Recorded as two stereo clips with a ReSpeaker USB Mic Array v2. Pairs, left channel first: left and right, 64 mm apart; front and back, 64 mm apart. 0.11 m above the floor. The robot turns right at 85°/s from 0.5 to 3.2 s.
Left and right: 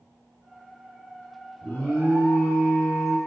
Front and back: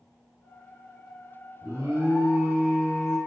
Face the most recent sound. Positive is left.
turn(degrees=-80)